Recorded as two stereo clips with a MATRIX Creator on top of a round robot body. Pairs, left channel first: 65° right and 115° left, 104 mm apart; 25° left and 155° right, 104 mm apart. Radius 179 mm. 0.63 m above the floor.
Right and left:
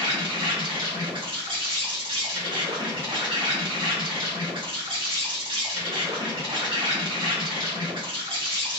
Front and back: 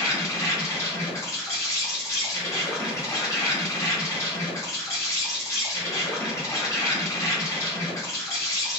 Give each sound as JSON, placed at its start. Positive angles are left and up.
{"t": 0.0, "sound": "an insect", "azimuth_deg": 80, "distance_m": 1.5}